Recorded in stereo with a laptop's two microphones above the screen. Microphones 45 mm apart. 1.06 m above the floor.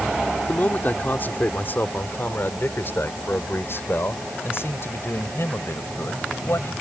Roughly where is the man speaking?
Left.